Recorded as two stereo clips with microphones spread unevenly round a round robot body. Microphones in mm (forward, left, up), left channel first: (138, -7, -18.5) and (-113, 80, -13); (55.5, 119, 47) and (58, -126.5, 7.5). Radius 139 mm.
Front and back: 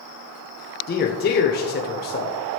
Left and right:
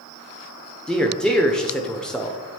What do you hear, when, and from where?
0.9 s a man speaking: 5° right, 0.9 m